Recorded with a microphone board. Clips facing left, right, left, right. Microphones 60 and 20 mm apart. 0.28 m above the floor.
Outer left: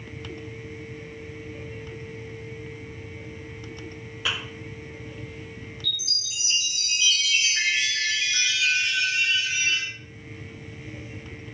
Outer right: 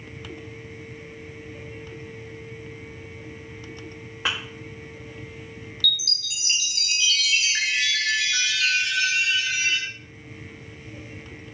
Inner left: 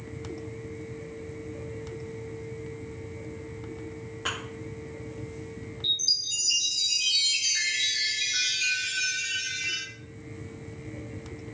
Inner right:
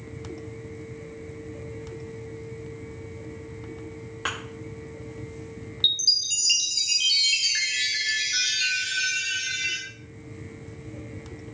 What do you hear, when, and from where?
4.2 s a thud: 40° right (ahead or behind), 1.9 m
5.8 s a chime: 85° right, 1.2 m